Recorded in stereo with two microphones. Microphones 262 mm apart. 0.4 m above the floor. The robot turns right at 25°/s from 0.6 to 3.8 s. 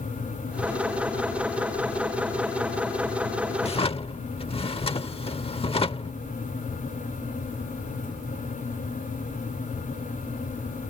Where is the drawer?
25° left (ahead or behind); by 6.2 s 20° left (ahead or behind).